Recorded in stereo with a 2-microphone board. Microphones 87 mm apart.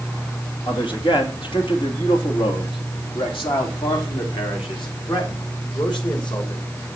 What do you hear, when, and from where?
0.7 s a man speaking: 70° left (ahead or behind), 2.5 m; by 6.6 s 65° left (ahead or behind), 4.5 m